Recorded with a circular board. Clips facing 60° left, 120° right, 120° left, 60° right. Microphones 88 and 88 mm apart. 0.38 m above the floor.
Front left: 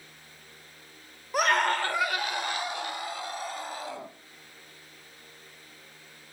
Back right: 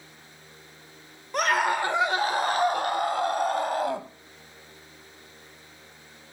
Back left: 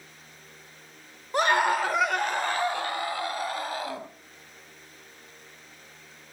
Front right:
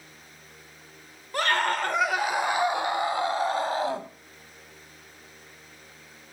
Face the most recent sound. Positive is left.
turn(degrees=-115)